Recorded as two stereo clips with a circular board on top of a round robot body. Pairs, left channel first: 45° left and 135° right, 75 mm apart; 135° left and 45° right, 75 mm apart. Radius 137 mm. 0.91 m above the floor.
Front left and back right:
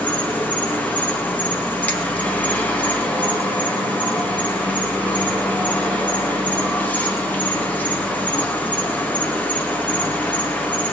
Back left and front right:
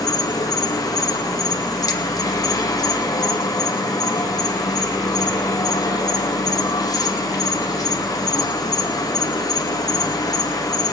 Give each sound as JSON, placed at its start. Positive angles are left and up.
{"t": 0.0, "sound": "an insect", "azimuth_deg": 110, "distance_m": 2.5}